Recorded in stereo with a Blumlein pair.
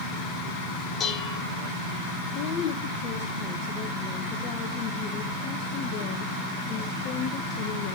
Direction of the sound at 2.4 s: 35° left.